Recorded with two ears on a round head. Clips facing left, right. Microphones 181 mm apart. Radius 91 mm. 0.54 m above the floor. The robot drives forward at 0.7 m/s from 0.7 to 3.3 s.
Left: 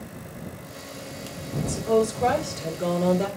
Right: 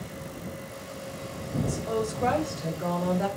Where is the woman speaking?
30° left (ahead or behind), 3 m; by 3.3 s 40° left (ahead or behind), 2.5 m.